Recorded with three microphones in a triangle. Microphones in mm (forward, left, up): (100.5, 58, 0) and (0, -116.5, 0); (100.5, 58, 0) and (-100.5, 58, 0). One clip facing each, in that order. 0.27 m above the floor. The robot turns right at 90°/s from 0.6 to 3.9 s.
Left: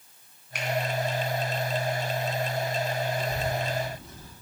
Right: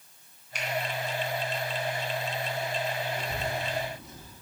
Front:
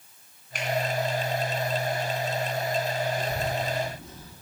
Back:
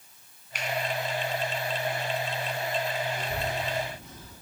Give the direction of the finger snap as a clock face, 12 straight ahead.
11 o'clock.